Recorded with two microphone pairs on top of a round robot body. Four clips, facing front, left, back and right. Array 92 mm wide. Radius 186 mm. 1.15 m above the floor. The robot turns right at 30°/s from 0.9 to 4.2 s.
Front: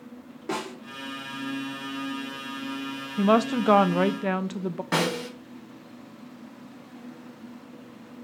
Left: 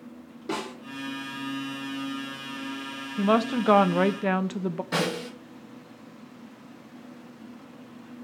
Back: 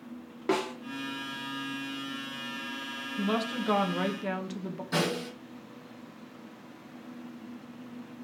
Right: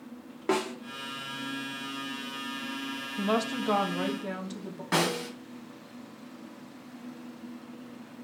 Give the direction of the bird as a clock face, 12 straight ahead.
No bird in this recording.